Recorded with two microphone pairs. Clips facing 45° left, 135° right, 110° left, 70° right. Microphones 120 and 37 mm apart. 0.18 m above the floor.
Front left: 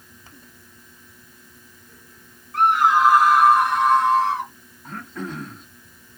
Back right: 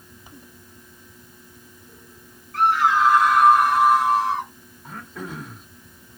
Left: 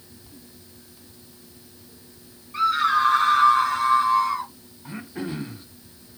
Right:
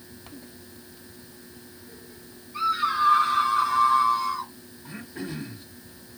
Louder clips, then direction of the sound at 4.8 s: Front left 3 dB, left 4 dB; 150° left.